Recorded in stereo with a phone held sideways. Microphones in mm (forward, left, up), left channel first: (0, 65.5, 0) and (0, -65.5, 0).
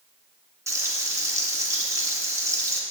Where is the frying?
25° right (ahead or behind), 2 m.